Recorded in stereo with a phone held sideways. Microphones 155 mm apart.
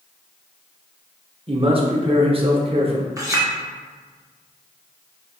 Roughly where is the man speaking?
Right.